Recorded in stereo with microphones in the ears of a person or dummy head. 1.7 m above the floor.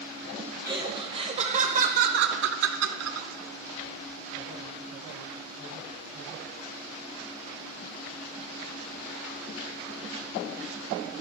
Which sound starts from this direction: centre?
Laughter, at 0.7 s.